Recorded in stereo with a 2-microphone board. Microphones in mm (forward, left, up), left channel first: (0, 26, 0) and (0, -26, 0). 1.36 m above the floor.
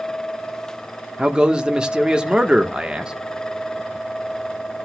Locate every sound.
1.2 s a man speaking: 15° right (ahead or behind), 1.2 m